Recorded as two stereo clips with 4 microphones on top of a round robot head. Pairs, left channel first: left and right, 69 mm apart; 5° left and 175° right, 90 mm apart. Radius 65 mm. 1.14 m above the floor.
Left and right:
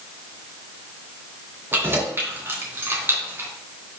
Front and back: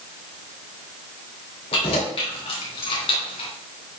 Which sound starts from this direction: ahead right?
Keys jangling, at 1.7 s.